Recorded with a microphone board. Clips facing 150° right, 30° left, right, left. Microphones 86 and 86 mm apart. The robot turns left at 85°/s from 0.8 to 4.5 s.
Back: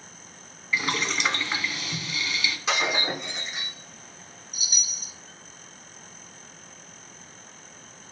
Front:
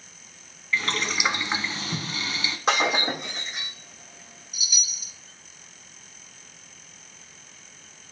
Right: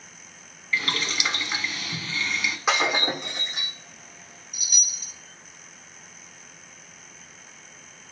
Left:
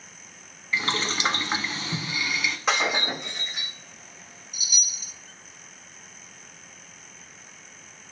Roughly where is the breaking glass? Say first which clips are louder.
Front 4 dB, right 2 dB; ahead.